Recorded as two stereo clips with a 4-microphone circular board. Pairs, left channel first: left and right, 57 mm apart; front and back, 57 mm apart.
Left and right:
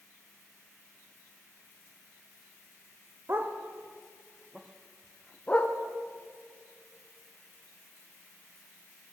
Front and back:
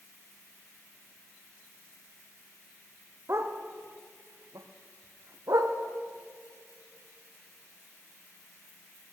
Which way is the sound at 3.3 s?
140° right.